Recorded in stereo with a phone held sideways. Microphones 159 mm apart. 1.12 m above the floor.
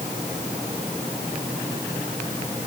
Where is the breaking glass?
I don't hear breaking glass.